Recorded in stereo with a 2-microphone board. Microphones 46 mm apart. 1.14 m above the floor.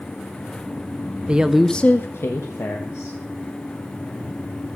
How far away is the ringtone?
I don't hear a ringtone.